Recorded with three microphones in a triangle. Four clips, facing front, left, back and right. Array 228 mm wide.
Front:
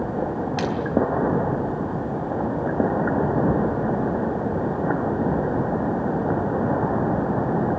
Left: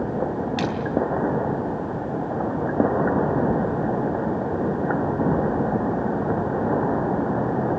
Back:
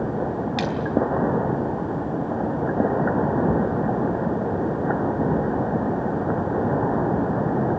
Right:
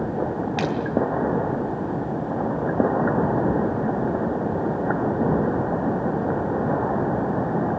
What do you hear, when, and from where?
0.6 s a splash: 100° right, 4 m